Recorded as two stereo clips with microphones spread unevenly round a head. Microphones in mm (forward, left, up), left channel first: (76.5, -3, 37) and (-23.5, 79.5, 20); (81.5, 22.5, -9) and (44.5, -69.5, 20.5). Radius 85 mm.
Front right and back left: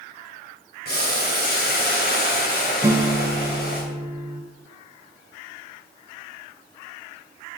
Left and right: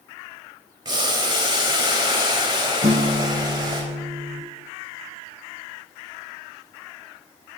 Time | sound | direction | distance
0.8 | boiling | 75° right | 3.5 m
2.8 | a guitar | 140° right | 1.1 m